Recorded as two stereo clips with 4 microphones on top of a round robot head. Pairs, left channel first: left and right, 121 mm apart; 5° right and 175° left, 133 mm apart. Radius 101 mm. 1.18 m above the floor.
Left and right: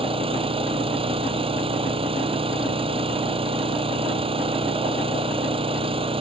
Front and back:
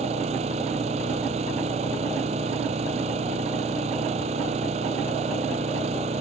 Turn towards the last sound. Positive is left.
turn(degrees=-130)